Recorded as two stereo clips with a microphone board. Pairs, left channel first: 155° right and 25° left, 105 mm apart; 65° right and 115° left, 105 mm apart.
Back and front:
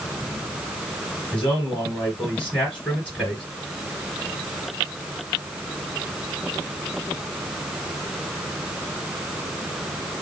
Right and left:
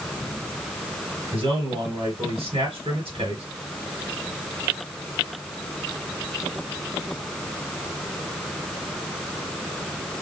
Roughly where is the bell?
No bell in this recording.